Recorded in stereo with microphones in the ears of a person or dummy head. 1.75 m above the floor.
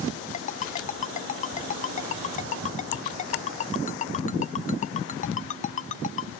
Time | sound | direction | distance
0.3 | a ringtone | 40° left (ahead or behind) | ?